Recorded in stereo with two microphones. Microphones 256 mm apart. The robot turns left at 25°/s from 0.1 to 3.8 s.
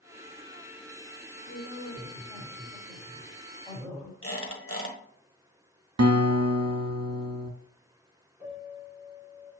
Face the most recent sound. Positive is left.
turn(degrees=-5)  # may be behind; listen again after turning